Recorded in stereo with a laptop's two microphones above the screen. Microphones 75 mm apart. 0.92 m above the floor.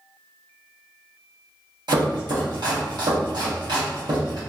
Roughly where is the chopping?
Right.